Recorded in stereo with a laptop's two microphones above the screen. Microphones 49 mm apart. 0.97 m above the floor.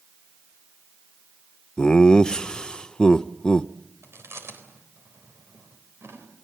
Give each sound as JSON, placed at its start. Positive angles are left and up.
{"t": 1.8, "sound": "laughter", "side_deg": 20, "distance_m": 0.6}
{"t": 4.0, "sound": "chewing", "side_deg": -65, "distance_m": 4.0}